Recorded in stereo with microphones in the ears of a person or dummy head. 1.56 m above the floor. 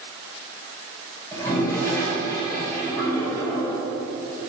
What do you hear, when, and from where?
1.3 s a toilet flushing: 15° left (ahead or behind), 1.4 m